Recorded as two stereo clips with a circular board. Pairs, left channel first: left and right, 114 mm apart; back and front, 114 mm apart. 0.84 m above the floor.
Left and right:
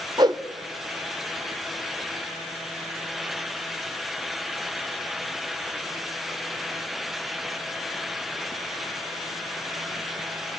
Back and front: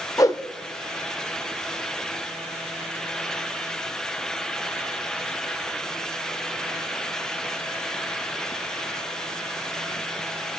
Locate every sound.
0.2 s a whoosh: 130° right, 0.6 m